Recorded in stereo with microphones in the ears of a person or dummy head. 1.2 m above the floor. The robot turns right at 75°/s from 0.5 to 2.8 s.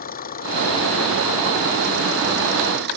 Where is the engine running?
135° left; by 3.0 s 50° right.